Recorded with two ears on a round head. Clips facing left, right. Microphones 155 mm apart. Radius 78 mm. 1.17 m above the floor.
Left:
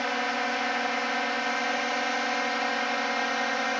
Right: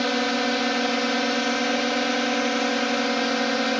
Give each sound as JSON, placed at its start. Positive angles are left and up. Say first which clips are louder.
{"t": 0.0, "sound": "a drone", "louder": "right 6 dB", "side_deg": -50}